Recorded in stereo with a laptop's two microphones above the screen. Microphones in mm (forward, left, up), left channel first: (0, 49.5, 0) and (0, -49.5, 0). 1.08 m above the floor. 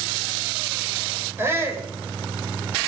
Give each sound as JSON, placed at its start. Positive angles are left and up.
{"t": 1.4, "sound": "a shout", "side_deg": -25, "distance_m": 4.0}